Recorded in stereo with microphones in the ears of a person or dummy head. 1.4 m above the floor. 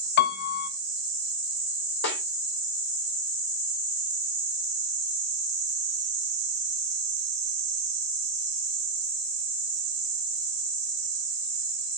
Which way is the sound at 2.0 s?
70° left (ahead or behind).